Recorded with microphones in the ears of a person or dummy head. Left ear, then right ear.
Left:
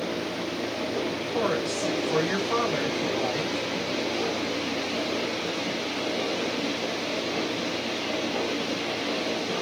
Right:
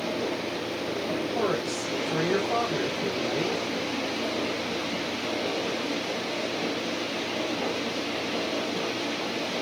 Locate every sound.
1.3 s a woman speaking: 50° left (ahead or behind), 1.7 m